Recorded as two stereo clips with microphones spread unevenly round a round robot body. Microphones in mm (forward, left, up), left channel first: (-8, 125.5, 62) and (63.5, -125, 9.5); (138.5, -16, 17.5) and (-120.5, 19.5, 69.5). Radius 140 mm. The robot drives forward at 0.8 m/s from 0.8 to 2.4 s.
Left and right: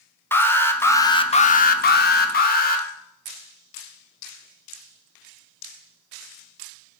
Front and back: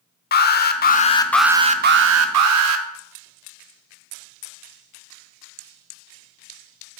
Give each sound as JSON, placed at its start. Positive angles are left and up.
{"t": 0.3, "sound": "an alarm", "azimuth_deg": 15, "distance_m": 0.9}